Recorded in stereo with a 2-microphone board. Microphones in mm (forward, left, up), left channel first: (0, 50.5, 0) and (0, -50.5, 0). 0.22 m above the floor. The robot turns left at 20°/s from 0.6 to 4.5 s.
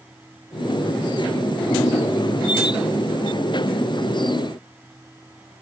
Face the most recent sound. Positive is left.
No sound to turn to.